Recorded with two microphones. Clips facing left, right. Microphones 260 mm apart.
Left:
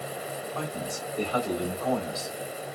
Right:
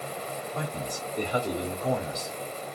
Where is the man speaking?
15° right (ahead or behind), 1.2 m.